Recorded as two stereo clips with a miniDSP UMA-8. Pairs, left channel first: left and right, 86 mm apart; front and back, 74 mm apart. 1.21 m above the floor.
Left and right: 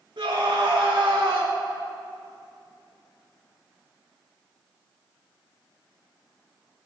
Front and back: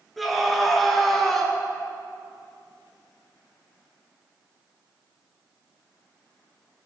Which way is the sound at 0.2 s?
90° right.